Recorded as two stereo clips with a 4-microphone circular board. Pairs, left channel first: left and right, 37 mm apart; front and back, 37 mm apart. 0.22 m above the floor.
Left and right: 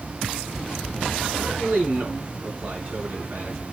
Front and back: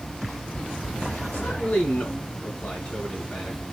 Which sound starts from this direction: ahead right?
A man speaking, at 1.3 s.